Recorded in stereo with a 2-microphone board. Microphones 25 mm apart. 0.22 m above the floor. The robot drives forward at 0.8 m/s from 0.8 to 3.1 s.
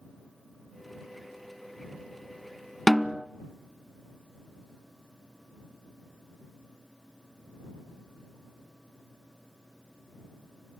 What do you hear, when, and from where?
2.9 s a snare drum: 5° left (ahead or behind), 0.6 m